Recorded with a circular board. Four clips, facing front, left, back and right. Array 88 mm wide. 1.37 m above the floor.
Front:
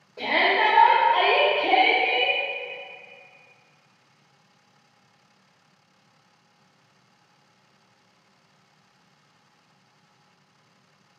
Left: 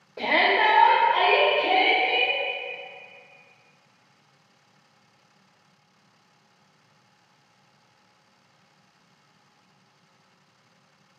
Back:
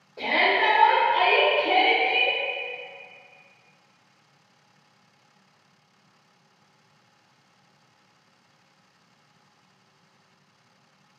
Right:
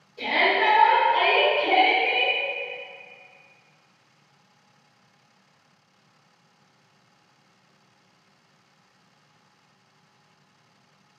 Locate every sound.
0.2 s a shout: 85° left, 0.8 m; by 2.4 s straight ahead, 1.9 m